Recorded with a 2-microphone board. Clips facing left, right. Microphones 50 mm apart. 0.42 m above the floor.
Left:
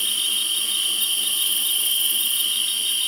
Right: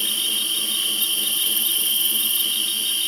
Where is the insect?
5° left (ahead or behind), 1.9 m.